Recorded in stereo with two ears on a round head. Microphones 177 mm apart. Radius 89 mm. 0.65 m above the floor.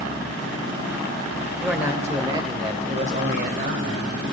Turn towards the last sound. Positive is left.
turn(degrees=-60)  # may be behind; listen again after turning